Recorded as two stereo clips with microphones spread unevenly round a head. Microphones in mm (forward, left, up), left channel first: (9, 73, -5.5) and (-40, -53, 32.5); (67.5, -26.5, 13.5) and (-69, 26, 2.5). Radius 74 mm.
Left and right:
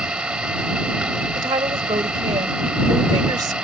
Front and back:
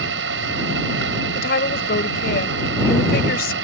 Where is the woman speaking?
50° right.